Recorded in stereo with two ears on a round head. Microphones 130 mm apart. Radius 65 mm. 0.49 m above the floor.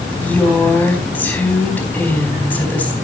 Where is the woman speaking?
10° left (ahead or behind), 4 m.